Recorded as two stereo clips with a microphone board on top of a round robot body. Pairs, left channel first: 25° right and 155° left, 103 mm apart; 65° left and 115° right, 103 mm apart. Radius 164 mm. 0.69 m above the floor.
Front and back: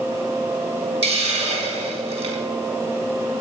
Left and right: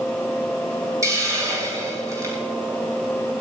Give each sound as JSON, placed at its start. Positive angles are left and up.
{"t": 1.0, "sound": "a hiss", "azimuth_deg": -175, "distance_m": 3.5}